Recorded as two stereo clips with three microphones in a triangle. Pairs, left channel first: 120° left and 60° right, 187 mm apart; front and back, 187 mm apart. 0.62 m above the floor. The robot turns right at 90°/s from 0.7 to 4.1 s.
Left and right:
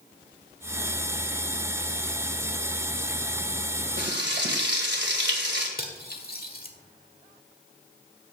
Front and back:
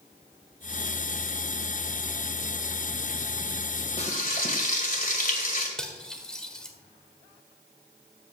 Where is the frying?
55° right, 2 m; by 5.7 s 40° right, 2 m.